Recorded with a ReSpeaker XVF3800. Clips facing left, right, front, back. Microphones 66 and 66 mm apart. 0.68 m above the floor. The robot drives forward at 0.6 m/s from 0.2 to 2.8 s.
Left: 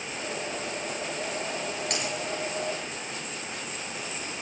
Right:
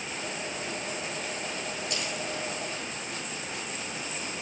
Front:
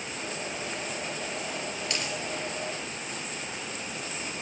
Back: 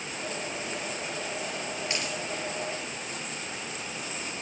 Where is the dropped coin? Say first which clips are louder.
Left 2 dB, even; 115° left, 5 m.